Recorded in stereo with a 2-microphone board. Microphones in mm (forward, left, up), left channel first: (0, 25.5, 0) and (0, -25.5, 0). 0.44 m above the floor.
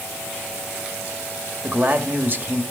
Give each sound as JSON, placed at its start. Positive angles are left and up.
{"t": 1.6, "sound": "a man speaking", "side_deg": -40, "distance_m": 1.8}